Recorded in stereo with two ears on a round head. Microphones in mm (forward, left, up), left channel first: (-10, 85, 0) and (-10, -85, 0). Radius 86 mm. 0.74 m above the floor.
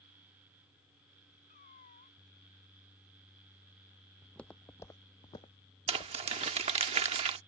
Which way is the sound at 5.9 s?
30° right (ahead or behind).